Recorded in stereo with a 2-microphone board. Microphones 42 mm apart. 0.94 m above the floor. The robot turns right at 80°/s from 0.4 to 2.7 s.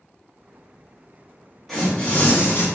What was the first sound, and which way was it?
Tearing paper, 10° left.